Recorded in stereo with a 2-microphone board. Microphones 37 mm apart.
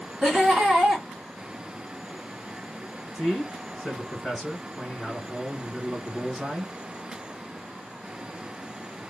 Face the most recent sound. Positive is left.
turn(degrees=5)  # may be behind; listen again after turning